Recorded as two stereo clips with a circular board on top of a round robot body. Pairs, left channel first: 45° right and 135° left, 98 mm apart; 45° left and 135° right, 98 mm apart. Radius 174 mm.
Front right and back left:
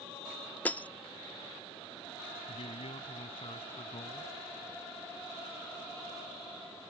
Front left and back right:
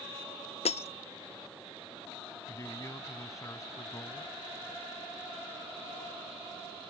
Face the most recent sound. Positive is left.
turn(degrees=-15)